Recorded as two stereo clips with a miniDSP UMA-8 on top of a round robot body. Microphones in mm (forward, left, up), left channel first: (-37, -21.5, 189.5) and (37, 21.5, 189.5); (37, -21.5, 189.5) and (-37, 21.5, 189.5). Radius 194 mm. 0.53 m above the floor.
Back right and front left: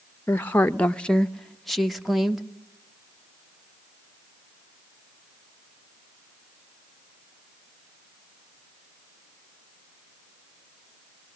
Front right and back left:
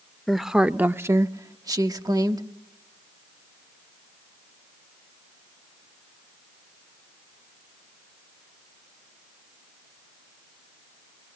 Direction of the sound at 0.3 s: 115° right.